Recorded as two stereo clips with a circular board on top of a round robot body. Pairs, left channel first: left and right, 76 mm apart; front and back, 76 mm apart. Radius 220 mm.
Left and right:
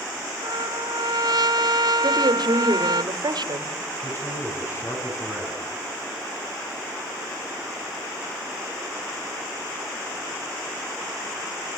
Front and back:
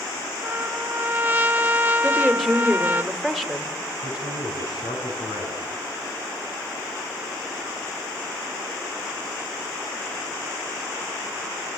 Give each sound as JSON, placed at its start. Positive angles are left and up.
{"t": 0.4, "sound": "a trumpet", "azimuth_deg": -110, "distance_m": 1.4}
{"t": 2.0, "sound": "a woman speaking", "azimuth_deg": -85, "distance_m": 2.5}
{"t": 4.0, "sound": "a man speaking", "azimuth_deg": 30, "distance_m": 7.5}